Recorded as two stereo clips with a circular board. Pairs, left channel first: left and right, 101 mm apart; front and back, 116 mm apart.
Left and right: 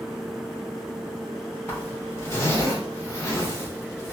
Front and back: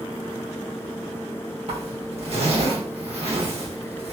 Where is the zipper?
150° left, 1.5 m.